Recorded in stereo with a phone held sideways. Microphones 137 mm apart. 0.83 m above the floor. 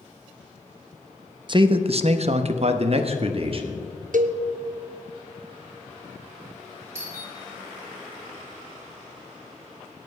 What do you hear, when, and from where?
1.5 s a man speaking: 35° right (ahead or behind), 0.7 m; by 3.9 s 40° right (ahead or behind), 1.5 m
4.1 s a cowbell: 75° right (ahead or behind), 0.7 m
7.0 s a doorbell: 20° right (ahead or behind), 5.5 m